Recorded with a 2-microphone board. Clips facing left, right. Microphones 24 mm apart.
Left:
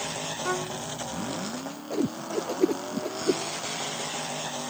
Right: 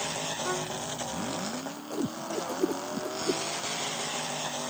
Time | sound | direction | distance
0.4 | a violin | 15° left (ahead or behind) | ?
1.9 | a whoosh | 40° left (ahead or behind) | ?